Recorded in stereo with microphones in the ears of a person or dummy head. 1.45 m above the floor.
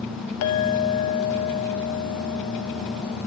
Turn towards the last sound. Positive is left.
turn(degrees=70)  # may be behind; listen again after turning